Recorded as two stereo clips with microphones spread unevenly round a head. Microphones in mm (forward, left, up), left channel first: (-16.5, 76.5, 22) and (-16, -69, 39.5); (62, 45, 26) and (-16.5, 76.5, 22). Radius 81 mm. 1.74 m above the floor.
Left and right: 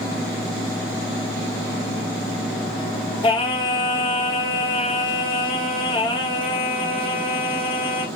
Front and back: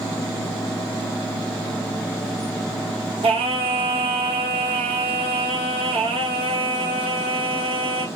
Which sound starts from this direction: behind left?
Singing, at 3.2 s.